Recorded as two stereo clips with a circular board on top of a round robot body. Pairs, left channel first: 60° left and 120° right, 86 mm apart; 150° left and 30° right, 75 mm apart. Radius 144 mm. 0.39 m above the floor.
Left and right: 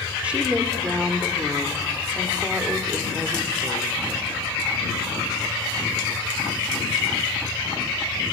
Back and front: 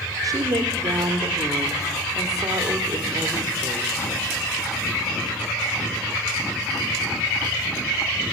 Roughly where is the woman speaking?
Ahead right.